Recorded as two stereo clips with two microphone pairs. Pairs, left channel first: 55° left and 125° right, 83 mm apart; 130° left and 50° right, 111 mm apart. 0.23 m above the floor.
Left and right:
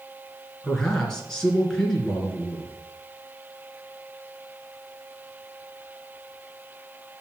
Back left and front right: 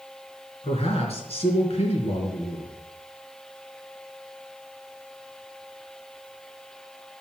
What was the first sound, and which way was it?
A man speaking, 140° left.